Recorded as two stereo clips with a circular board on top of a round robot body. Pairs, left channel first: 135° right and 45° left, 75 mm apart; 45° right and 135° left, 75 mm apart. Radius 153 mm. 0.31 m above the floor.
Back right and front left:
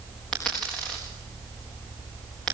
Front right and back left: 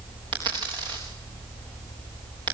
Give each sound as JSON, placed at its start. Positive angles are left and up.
{"t": 0.3, "sound": "a dropped coin", "azimuth_deg": 145, "distance_m": 5.0}